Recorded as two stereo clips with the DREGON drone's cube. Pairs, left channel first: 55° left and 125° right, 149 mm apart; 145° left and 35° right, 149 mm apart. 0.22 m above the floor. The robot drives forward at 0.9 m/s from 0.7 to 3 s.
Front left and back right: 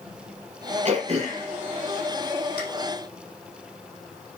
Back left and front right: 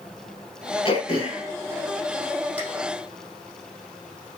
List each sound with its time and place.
0.8 s throat clearing: 165° right, 2.5 m; by 2.6 s 170° right, 4 m